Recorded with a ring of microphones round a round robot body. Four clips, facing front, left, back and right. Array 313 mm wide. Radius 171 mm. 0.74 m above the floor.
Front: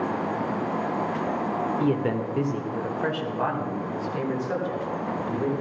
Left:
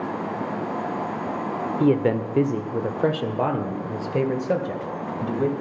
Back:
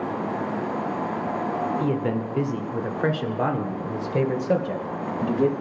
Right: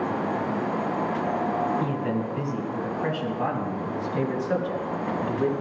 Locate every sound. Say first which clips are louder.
1.8 s a man speaking: left 7 dB, even; 80° left, 2 m; by 5.5 s 145° left, 4 m